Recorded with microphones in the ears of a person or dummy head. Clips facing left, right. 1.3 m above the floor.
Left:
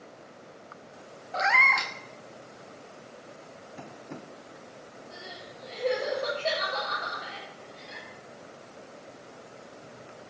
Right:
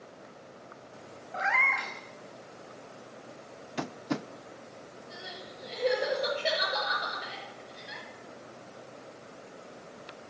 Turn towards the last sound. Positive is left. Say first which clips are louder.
# even
turn(degrees=-10)  # may be behind; listen again after turning